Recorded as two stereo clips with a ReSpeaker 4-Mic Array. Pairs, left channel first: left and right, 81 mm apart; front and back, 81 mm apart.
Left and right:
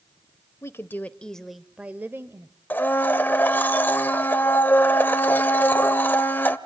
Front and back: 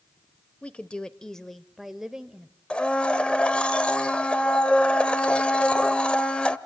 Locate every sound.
0.6 s a woman speaking: 65° left, 1.0 m; by 2.5 s 110° right, 1.1 m
2.7 s a blender: 60° left, 1.0 m